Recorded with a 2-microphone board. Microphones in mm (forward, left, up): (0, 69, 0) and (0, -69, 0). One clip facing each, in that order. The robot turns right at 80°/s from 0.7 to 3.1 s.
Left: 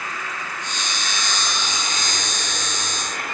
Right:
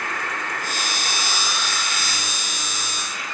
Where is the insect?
65° right, 2 m; by 3.4 s 130° left, 2 m.